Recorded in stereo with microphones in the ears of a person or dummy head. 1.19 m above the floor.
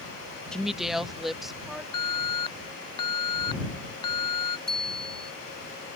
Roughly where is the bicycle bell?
Centre.